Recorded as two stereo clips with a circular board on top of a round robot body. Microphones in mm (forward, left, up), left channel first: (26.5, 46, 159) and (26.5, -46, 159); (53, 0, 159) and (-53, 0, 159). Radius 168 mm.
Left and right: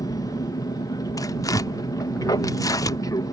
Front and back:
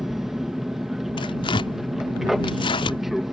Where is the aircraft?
95° left.